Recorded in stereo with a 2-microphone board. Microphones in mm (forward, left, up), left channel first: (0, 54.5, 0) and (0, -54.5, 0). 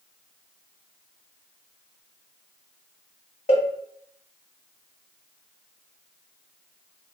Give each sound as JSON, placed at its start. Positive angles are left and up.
{"t": 3.5, "sound": "a cowbell", "side_deg": 70, "distance_m": 0.8}